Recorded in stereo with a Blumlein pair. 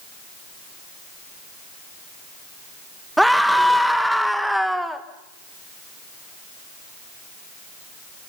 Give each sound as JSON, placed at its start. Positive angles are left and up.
{"t": 3.2, "sound": "a scream", "azimuth_deg": 0, "distance_m": 1.7}